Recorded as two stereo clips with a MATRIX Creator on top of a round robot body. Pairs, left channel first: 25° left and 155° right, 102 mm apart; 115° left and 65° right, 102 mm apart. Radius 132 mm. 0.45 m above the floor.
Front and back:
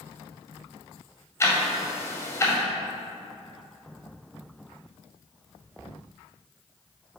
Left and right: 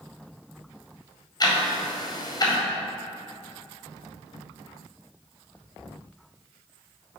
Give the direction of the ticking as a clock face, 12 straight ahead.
9 o'clock.